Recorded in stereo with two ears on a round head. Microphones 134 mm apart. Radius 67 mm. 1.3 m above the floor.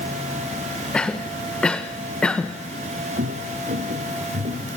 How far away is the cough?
About 1.1 m.